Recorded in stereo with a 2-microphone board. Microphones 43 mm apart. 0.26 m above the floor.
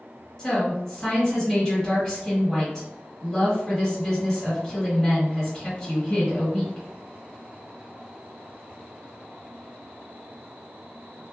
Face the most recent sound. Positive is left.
turn(degrees=15)  # may be behind; listen again after turning